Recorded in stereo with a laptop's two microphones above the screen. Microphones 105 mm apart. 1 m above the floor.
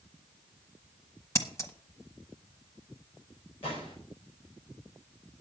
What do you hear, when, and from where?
1.4 s scissors: 25° left (ahead or behind), 1.0 m
3.6 s a gunshot: 65° left (ahead or behind), 4.5 m